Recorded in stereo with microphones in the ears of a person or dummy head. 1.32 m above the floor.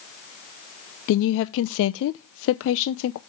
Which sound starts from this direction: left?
A woman speaking, at 1.1 s.